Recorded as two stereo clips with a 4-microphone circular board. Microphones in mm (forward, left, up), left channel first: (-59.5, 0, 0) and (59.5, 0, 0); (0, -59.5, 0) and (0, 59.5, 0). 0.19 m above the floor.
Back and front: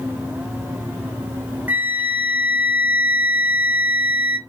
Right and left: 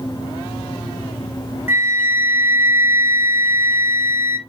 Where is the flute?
50° left, 1.2 m.